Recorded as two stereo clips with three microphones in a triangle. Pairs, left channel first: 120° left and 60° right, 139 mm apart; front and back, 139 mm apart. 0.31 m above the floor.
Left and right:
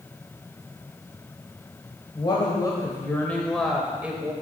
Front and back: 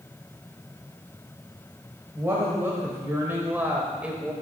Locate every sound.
2.1 s a woman speaking: 125° left, 1.4 m; by 4.3 s 110° right, 1.2 m